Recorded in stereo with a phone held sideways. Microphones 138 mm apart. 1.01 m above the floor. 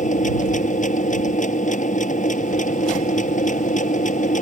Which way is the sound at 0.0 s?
65° left (ahead or behind).